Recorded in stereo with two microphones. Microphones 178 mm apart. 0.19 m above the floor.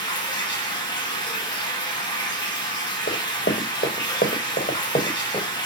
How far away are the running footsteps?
About 1.1 m.